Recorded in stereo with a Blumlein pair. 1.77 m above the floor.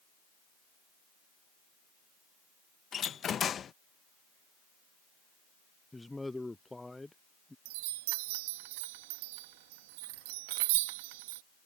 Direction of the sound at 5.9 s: 5° left.